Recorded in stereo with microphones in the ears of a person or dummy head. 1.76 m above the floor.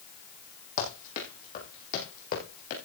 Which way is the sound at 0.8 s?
45° left (ahead or behind).